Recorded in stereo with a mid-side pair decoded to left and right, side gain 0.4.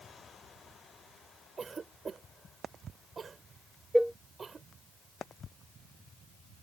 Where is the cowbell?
Straight ahead.